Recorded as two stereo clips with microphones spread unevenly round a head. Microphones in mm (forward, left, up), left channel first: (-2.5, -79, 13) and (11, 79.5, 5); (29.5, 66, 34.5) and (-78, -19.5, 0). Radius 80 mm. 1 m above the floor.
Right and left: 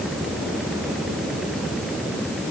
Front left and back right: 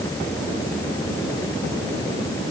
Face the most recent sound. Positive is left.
No sound to turn to.